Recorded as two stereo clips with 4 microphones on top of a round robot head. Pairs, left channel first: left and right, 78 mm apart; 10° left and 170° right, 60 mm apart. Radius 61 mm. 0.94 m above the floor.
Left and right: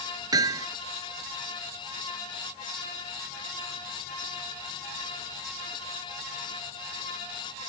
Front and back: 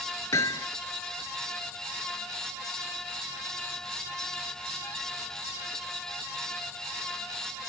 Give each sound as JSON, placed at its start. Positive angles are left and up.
{"t": 0.3, "sound": "hammering", "azimuth_deg": -50}